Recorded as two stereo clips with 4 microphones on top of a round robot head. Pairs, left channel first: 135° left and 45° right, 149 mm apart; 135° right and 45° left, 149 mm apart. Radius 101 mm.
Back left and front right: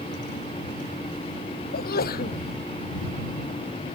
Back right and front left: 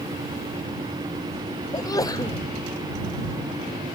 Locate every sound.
1.7 s a sneeze: 160° left